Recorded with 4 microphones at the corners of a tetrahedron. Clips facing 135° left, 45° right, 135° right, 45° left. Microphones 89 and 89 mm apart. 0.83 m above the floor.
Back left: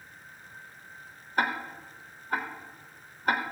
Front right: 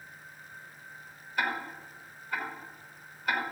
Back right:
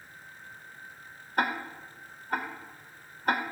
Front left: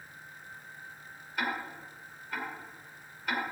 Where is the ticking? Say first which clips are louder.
Back left 3 dB, back right 5 dB; 175° right, 1.6 m.